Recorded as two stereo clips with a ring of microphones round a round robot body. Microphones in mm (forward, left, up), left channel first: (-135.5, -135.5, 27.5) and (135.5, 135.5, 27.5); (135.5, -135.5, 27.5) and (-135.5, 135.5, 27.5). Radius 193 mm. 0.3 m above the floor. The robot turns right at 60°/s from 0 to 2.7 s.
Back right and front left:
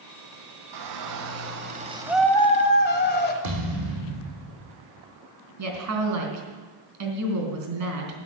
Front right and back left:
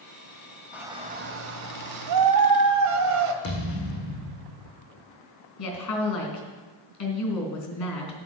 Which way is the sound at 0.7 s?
50° left.